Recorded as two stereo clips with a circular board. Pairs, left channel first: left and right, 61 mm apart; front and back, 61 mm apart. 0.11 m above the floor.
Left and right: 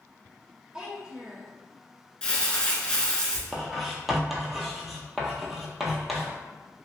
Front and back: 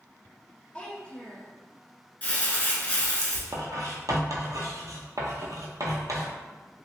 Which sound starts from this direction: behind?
Writing, at 3.5 s.